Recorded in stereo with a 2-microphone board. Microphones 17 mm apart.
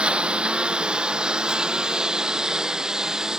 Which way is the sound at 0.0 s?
75° right (ahead or behind).